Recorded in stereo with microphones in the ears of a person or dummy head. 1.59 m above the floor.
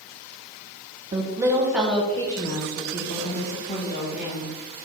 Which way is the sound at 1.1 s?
30° right (ahead or behind).